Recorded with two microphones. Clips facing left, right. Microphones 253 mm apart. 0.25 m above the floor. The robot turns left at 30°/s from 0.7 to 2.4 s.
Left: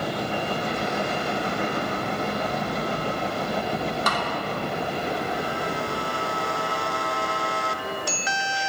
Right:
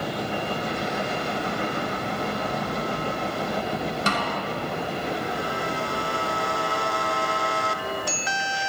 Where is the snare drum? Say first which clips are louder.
Right 1 dB; 30° right (ahead or behind), 0.9 m.